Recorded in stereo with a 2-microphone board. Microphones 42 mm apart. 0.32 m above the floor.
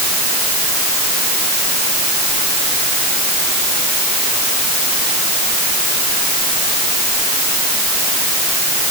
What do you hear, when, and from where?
Only background noise.